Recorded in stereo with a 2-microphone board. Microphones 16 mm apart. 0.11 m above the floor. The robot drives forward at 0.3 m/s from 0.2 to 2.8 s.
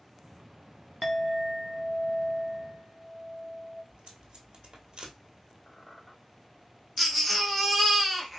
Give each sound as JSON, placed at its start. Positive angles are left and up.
{"t": 1.0, "sound": "a clink", "side_deg": 10, "distance_m": 0.8}
{"t": 3.9, "sound": "tape being pulled", "side_deg": -55, "distance_m": 1.2}
{"t": 5.7, "sound": "a squeak", "side_deg": 15, "distance_m": 1.8}
{"t": 7.0, "sound": "a baby crying", "side_deg": 5, "distance_m": 0.9}